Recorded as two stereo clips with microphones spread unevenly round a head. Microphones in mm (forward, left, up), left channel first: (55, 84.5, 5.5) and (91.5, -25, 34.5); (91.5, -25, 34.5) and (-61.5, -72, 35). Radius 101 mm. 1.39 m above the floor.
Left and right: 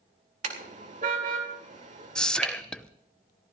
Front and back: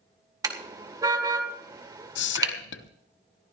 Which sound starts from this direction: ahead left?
Whispering, at 2.1 s.